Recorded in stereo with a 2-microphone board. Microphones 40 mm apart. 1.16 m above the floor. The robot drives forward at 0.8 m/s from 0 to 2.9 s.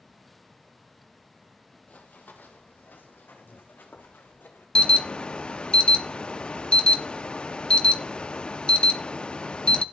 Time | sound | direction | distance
1.9 | running footsteps | 50° left (ahead or behind) | 1.7 m
4.8 | an alarm | 25° left (ahead or behind) | 0.5 m